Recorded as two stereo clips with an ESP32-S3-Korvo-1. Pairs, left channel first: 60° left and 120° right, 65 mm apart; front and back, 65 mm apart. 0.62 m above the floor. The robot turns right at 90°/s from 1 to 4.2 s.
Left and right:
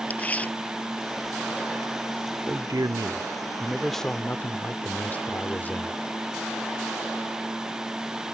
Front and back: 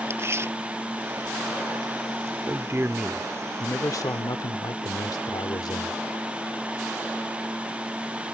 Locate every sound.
0.1 s tearing paper: 130° left; by 1.9 s 150° right
2.5 s a man speaking: 160° right; by 6.0 s 5° right